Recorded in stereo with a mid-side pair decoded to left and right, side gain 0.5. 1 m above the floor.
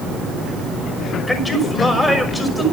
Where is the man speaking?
15° left, 6 m.